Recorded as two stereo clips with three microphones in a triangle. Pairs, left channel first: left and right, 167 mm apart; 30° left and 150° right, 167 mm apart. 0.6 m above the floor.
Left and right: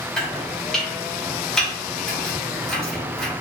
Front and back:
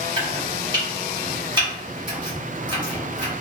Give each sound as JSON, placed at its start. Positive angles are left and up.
{"t": 0.2, "sound": "chopping", "azimuth_deg": 175, "distance_m": 1.2}